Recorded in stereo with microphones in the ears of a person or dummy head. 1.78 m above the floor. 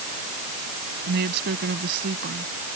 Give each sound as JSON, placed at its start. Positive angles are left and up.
{"t": 1.1, "sound": "a woman speaking", "side_deg": -55}